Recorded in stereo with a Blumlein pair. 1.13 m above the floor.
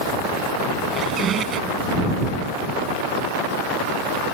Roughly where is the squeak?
Ahead right.